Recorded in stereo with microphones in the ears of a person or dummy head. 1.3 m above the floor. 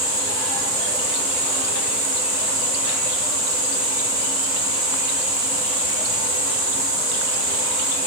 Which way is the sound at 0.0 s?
10° right (ahead or behind).